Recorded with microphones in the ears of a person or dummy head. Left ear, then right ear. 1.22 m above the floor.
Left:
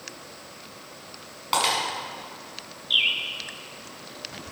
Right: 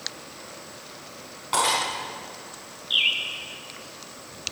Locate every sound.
1.5 s breaking glass: 30° left (ahead or behind), 6 m
2.9 s a bird: 5° left (ahead or behind), 1.2 m